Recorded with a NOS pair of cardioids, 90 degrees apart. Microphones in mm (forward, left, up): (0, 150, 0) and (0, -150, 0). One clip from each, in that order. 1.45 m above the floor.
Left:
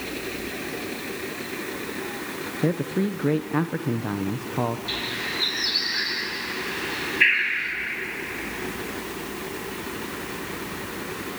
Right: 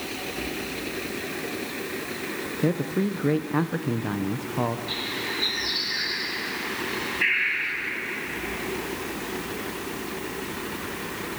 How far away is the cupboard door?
I don't hear a cupboard door.